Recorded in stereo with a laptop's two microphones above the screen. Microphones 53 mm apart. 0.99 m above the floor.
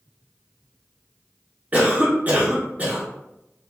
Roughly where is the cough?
Right.